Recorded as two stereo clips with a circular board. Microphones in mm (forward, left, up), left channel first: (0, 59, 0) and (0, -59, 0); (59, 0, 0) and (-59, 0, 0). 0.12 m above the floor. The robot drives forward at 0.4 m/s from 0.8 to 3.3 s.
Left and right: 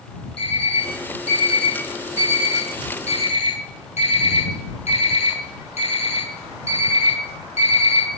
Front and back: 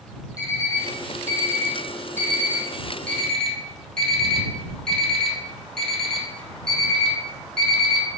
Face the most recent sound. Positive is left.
turn(degrees=85)